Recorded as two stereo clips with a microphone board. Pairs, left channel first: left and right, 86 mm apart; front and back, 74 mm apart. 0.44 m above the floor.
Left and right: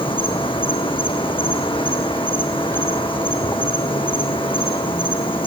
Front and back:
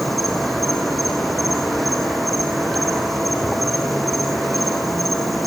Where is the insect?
90° left, 4 m.